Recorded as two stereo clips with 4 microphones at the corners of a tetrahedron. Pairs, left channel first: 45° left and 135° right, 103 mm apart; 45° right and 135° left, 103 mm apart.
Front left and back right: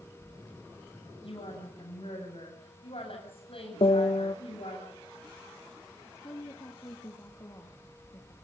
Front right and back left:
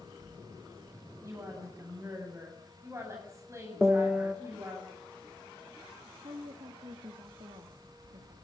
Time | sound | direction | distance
1.2 | a woman speaking | 75° left | 9 m
3.8 | a piano | 55° left | 1.9 m
6.0 | a woman speaking | 105° left | 3.5 m